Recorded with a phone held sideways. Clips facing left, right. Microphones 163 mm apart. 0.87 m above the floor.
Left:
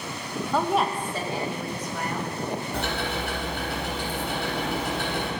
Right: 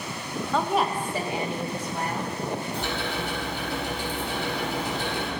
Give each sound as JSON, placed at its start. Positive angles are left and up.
{"t": 0.5, "sound": "a woman speaking", "side_deg": 10, "distance_m": 0.8}
{"t": 2.7, "sound": "ticking", "side_deg": 70, "distance_m": 3.0}